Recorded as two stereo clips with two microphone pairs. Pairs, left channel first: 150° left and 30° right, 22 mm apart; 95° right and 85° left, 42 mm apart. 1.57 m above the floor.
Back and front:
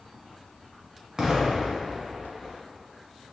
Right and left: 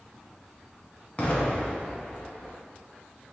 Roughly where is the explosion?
Ahead right.